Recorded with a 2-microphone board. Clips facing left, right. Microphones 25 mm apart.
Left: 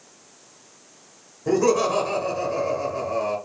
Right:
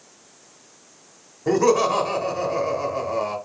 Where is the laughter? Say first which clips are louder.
Right 2 dB; 15° right (ahead or behind), 1.1 m.